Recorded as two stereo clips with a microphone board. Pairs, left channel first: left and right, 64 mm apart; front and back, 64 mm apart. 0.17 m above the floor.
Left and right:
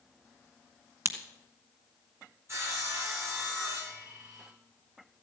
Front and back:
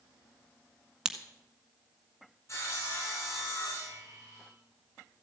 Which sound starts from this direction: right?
A crack, at 1.1 s.